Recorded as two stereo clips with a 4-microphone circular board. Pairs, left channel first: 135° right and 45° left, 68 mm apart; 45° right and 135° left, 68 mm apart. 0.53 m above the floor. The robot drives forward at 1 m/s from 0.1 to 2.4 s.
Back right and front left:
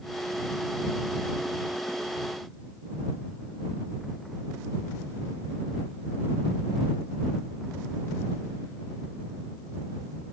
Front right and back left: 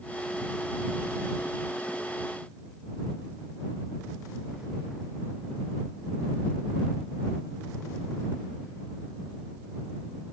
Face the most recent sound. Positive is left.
No sound to turn to.